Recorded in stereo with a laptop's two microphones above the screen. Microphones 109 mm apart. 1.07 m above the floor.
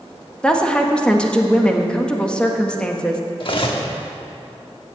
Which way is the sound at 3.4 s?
50° left (ahead or behind).